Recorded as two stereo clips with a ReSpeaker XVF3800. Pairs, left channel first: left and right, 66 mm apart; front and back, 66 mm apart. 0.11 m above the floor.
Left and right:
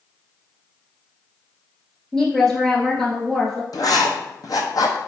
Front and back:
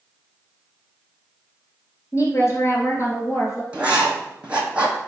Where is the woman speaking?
5° left, 1.5 m.